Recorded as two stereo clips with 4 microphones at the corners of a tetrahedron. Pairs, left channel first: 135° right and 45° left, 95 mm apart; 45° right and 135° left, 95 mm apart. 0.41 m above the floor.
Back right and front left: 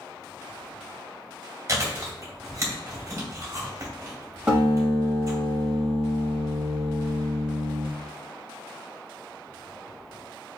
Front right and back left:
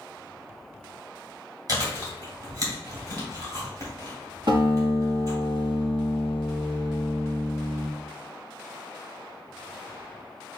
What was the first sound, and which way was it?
Chewing, 100° left.